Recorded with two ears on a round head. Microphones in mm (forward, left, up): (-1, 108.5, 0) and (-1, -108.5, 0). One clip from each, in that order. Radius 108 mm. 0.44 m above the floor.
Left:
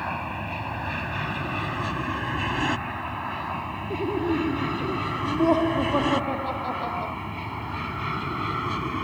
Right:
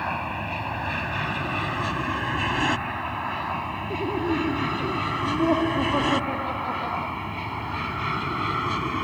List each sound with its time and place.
0.0 s an aircraft: 10° right (ahead or behind); by 9.0 s 15° right (ahead or behind)
3.9 s laughter: 25° left (ahead or behind)